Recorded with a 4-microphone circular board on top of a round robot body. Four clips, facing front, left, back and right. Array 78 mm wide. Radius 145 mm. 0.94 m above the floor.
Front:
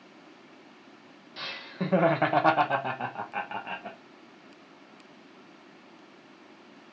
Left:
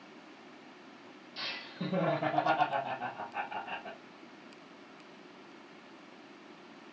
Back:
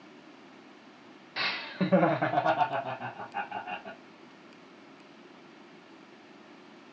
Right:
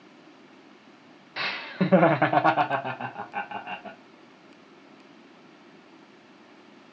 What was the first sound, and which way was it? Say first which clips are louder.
Laughter: right 13 dB, back 3 dB; 120° right.